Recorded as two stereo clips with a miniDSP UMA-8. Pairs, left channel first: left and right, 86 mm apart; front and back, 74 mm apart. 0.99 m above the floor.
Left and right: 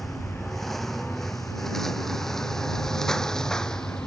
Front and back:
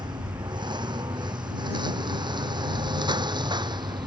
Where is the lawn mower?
Straight behind; by 4.1 s 170° left.